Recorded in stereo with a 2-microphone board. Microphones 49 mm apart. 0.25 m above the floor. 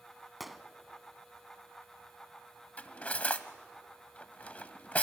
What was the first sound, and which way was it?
A gunshot, 5° right (ahead or behind).